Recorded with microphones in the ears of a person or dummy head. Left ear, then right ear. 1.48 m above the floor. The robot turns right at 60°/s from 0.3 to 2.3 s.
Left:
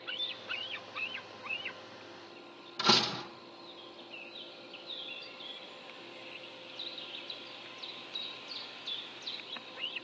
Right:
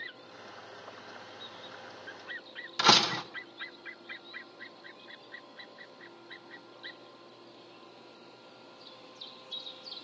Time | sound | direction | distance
2.8 | a door slam | 50° right (ahead or behind) | 0.6 m